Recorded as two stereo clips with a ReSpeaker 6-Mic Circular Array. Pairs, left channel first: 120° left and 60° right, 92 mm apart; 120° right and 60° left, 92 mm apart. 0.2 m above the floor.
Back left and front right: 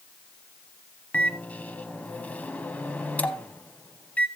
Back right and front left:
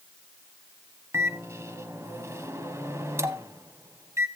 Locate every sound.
1.1 s a microwave: 65° left, 0.9 m